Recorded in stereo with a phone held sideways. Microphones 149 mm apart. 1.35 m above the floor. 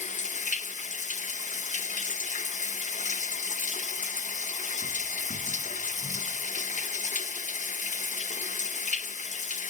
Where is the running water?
55° left (ahead or behind), 0.8 m.